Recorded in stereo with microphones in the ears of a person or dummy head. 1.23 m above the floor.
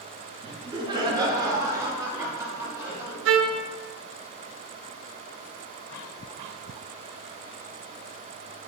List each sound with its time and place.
0.4 s laughter: 30° right (ahead or behind), 1.9 m; by 3.1 s 15° right (ahead or behind), 3.5 m
3.2 s a trumpet: 80° right, 0.6 m